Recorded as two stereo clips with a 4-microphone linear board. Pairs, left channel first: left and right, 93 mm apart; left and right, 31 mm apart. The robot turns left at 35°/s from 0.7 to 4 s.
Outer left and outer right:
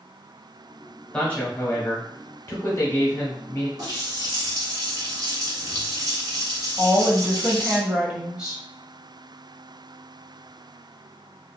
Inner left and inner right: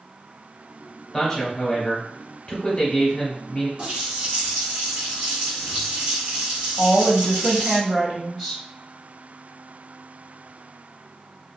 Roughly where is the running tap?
Right.